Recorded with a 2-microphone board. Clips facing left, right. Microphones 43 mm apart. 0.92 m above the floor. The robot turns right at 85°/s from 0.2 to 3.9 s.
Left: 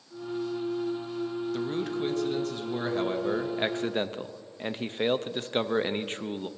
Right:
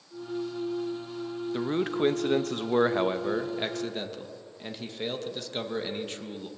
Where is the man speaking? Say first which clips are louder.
Right 6 dB; 155° right, 0.7 m; by 6.5 s 45° left, 0.7 m.